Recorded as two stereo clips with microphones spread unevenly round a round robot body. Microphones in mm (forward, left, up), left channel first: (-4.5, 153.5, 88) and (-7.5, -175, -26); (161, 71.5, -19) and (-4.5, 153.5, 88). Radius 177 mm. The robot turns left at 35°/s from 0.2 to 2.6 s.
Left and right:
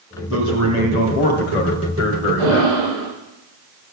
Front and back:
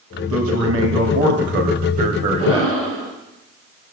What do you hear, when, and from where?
0.3 s a man speaking: 150° left, 2 m; by 2.7 s 70° left, 2 m
2.4 s breathing: 90° right, 7.5 m; by 3.1 s 95° right, 7.5 m